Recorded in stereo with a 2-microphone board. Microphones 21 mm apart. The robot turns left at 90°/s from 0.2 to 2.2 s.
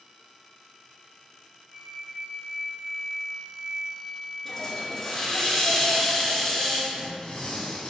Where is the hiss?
15° left (ahead or behind), 0.8 m.